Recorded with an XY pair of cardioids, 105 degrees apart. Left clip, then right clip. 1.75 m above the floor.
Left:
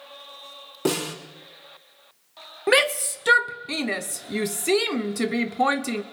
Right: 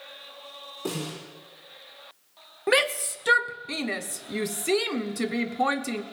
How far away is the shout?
About 1.0 m.